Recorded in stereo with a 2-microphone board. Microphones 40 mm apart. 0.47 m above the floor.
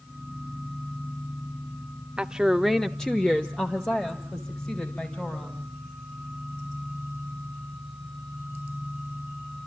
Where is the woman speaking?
20° right (ahead or behind), 0.9 m; by 5.7 s 35° left (ahead or behind), 4 m.